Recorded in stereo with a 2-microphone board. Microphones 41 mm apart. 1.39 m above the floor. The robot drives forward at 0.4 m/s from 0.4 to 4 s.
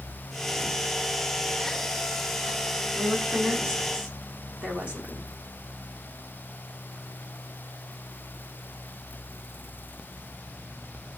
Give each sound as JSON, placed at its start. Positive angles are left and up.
{"t": 3.0, "sound": "a woman speaking", "side_deg": -35, "distance_m": 4.0}